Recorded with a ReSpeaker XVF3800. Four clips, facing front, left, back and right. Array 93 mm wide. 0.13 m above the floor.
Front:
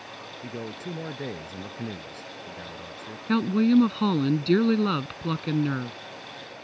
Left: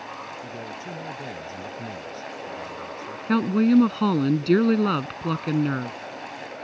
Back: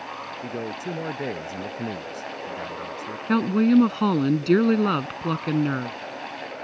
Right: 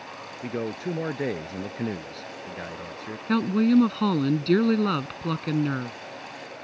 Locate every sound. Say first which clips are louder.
0.4 s a man speaking: right 5 dB, back 4 dB; 110° right
3.3 s a woman speaking: left 2 dB, back 2 dB; 150° left